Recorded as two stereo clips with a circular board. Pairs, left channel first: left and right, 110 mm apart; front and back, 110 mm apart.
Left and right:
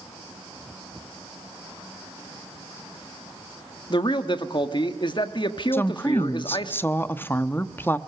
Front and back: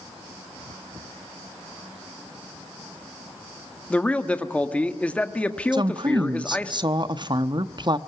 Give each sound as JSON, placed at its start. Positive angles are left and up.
{"t": 3.9, "sound": "a man speaking", "azimuth_deg": 75, "distance_m": 1.4}
{"t": 5.7, "sound": "a woman speaking", "azimuth_deg": 155, "distance_m": 0.9}